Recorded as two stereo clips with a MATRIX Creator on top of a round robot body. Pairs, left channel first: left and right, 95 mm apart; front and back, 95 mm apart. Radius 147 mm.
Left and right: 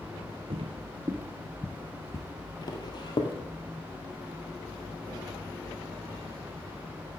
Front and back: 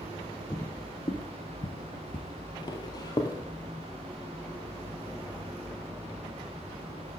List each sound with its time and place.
0.5 s footsteps: 70° right, 0.8 m; by 3.4 s 50° left, 1.5 m